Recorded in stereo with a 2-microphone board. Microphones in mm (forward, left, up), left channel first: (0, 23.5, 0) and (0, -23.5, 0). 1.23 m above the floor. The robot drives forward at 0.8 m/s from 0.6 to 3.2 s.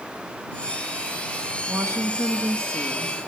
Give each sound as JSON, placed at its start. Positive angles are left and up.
{"t": 1.7, "sound": "a woman speaking", "side_deg": -85, "distance_m": 1.8}